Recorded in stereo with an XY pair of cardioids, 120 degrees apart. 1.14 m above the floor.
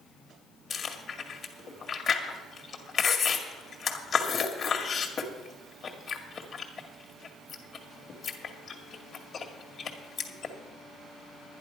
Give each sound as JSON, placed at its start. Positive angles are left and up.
{"t": 0.7, "sound": "chewing", "azimuth_deg": 40, "distance_m": 1.9}